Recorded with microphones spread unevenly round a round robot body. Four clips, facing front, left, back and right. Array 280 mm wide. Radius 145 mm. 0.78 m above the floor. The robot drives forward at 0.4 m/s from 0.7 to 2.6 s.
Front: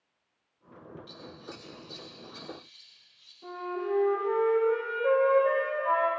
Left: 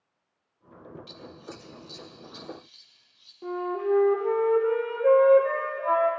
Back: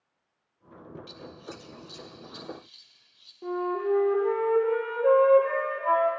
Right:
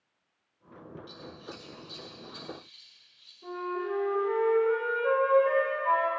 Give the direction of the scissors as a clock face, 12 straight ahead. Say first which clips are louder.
Left 1 dB, back 2 dB; 7 o'clock.